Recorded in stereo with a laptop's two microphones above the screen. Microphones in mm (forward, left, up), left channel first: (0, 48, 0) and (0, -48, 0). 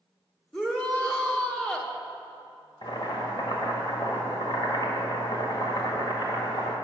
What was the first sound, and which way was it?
A shout, 10° left (ahead or behind).